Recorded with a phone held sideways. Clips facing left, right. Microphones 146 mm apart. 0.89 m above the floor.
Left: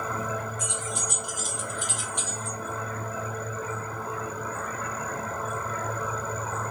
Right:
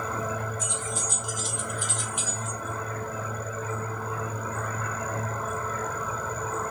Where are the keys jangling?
75° left (ahead or behind), 1.3 m; by 2.6 s 25° right (ahead or behind), 0.9 m.